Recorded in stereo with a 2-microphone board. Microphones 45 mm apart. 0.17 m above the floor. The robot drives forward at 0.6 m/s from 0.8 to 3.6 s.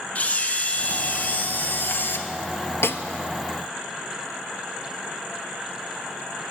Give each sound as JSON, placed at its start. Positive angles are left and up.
{"t": 0.1, "sound": "a camera shutter", "side_deg": 35, "distance_m": 1.5}
{"t": 2.8, "sound": "a snare drum", "side_deg": 75, "distance_m": 0.6}